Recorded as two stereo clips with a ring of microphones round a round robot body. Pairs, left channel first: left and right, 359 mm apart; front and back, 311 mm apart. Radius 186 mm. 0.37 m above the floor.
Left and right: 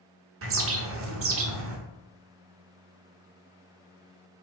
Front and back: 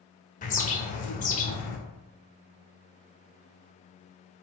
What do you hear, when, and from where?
0.4 s a bird: 55° right, 1.0 m